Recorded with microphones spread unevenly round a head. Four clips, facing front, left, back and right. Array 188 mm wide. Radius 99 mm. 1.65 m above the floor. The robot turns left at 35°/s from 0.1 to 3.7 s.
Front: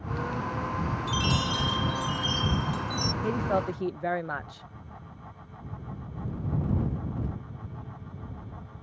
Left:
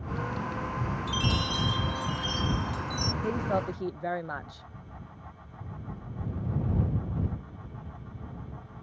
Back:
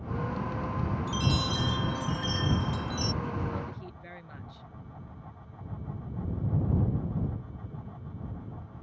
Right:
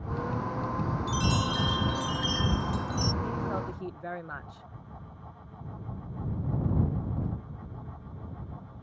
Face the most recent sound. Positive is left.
turn(degrees=20)